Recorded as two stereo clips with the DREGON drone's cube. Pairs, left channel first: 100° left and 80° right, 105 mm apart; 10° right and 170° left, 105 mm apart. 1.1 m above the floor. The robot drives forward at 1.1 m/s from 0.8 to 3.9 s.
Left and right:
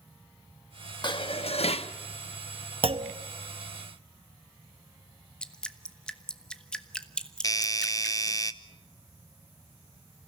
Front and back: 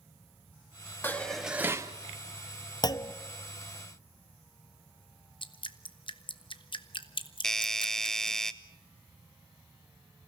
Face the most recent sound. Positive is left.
turn(degrees=70)